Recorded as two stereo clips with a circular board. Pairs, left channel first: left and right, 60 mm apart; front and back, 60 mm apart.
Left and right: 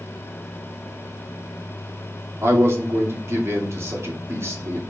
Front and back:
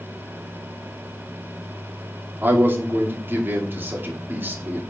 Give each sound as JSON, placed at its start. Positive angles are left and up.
{"t": 2.4, "sound": "a man speaking", "azimuth_deg": -130, "distance_m": 2.5}